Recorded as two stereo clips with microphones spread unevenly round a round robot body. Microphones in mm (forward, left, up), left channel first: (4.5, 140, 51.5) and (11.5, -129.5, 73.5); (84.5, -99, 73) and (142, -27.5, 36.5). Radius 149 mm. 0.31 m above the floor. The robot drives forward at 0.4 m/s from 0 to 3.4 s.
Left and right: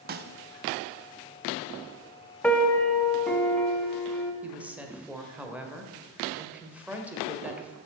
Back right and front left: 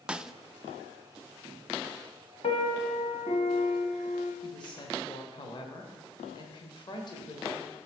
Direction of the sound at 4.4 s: 175° right.